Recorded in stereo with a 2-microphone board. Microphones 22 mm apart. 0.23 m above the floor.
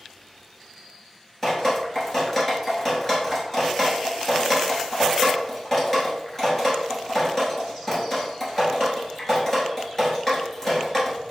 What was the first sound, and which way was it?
Dripping, 15° left (ahead or behind).